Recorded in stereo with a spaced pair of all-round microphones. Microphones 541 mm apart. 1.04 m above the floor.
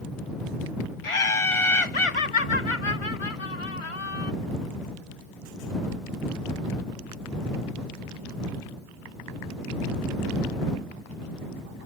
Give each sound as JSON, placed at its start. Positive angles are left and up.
{"t": 1.0, "sound": "laughter", "side_deg": 70}